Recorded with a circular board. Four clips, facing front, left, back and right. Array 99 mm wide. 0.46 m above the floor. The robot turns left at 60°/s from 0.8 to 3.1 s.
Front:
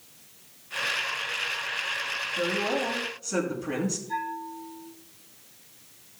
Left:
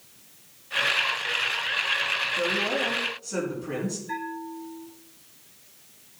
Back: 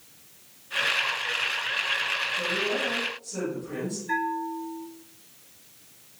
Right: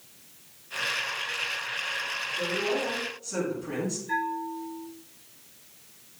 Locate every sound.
2.4 s a woman speaking: 50° left, 5 m; by 4.0 s 5° left, 5 m
4.1 s a bell: 175° left, 3.5 m